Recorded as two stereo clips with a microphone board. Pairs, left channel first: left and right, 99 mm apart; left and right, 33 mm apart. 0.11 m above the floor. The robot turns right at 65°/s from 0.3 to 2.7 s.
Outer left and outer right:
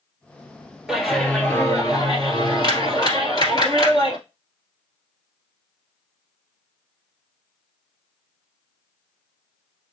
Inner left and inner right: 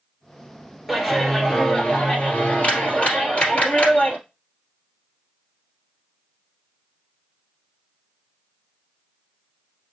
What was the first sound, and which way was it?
A clap, 15° right.